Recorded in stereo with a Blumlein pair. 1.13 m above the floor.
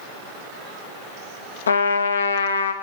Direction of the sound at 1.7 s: 70° left.